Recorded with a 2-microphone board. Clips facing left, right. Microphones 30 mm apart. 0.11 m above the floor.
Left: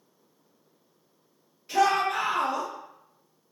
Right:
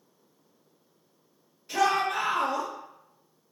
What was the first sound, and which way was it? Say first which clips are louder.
A shout: left 2 dB; 10° left (ahead or behind).